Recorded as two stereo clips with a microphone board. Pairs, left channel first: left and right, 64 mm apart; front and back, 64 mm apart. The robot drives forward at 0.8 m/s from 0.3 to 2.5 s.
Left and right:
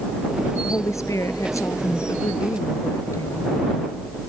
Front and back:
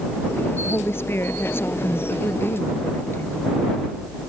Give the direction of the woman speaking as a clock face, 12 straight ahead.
10 o'clock.